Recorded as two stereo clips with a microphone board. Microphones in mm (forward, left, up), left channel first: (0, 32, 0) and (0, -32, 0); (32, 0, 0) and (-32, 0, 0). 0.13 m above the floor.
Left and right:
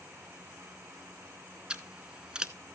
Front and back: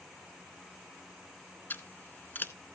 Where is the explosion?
No explosion in this recording.